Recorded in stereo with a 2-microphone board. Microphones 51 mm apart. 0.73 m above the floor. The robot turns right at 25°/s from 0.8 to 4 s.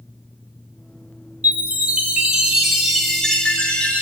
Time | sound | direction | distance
1.4 | a chime | 35° right | 1.8 m